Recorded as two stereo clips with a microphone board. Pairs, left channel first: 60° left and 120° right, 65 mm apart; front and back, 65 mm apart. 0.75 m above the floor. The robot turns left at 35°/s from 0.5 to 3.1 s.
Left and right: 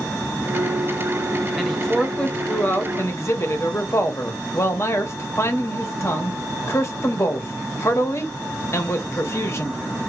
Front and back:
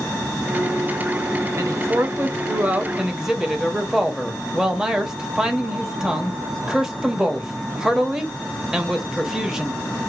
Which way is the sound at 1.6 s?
155° left.